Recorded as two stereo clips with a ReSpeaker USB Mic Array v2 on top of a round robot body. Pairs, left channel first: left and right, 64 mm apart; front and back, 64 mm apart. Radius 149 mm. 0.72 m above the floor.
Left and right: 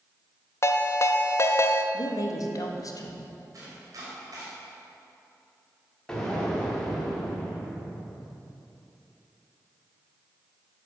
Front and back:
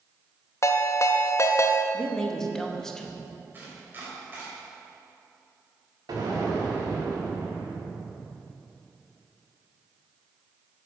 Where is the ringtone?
45° left, 0.6 m.